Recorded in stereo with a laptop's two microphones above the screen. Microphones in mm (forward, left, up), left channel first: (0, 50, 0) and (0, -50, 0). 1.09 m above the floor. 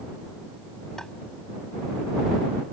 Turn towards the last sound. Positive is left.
turn(degrees=5)  # may be behind; listen again after turning